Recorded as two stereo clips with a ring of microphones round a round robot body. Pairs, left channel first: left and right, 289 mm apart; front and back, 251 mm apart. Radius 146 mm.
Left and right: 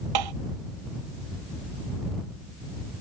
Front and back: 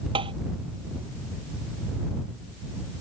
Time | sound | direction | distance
0.1 | tapping | 105° right | ?